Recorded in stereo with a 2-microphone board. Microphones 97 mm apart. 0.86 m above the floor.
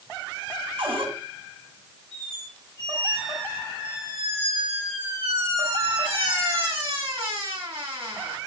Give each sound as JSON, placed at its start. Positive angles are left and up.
{"t": 0.8, "sound": "a cupboard door", "side_deg": -80, "distance_m": 4.5}
{"t": 2.1, "sound": "a squeak", "side_deg": -80, "distance_m": 4.0}